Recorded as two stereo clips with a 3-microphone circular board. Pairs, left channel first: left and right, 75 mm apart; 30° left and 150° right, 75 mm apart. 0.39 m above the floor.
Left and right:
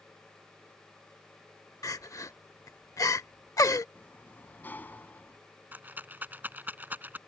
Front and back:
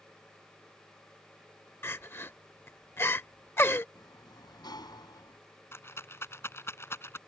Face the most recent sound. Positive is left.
turn(degrees=-25)